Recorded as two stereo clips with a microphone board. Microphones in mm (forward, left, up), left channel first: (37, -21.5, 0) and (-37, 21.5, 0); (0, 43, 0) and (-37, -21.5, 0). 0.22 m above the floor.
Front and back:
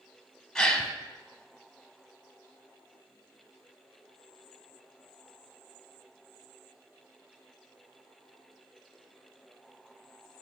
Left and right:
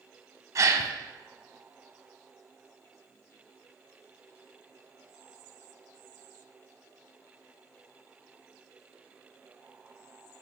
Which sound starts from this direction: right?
A gasp, at 0.6 s.